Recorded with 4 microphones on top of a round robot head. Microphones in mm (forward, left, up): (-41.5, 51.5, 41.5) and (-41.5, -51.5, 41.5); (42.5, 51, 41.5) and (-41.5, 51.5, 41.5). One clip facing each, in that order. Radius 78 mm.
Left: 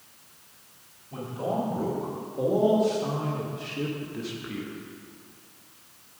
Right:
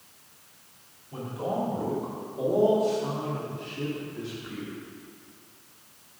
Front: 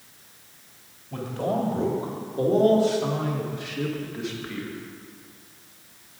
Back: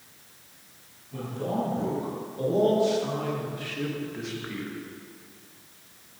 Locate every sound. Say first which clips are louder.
1.1 s a man speaking: left 1 dB, front 4 dB; 20° left, 3 m; by 4.8 s 105° left, 1.8 m